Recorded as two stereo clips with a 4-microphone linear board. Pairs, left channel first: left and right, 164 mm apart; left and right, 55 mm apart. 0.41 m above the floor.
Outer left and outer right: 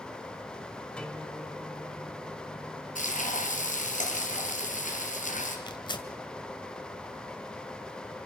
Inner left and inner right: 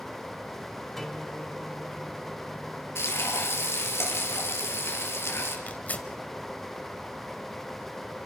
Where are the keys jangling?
No keys jangling in this recording.